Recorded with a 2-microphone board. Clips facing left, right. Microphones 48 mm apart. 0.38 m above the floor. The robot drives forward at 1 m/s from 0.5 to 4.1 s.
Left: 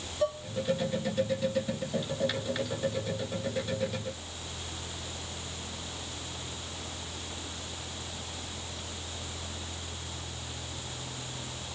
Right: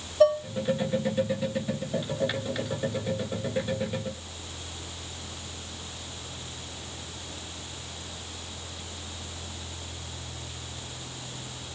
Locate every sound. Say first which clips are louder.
0.2 s dishes clattering: right 10 dB; 70° right (ahead or behind), 1.7 m